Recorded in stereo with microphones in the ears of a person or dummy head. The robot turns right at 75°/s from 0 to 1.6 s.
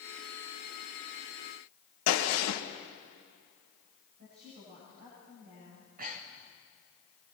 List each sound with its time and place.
2.1 s a gunshot: 75° left (ahead or behind), 2.5 m
4.2 s a woman speaking: 45° right (ahead or behind), 9 m
5.7 s breathing: 40° right (ahead or behind), 2.0 m